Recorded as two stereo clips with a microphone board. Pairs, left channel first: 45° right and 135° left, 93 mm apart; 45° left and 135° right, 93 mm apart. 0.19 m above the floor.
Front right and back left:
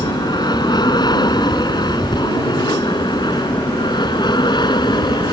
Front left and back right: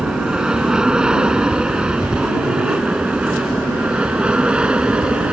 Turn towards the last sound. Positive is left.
turn(degrees=-60)